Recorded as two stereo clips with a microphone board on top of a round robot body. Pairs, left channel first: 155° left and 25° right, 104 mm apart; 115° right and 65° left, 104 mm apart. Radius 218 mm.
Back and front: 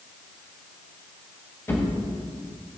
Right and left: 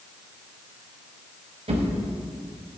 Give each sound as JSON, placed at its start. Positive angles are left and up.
{"t": 1.7, "sound": "a drawer", "azimuth_deg": 90, "distance_m": 1.9}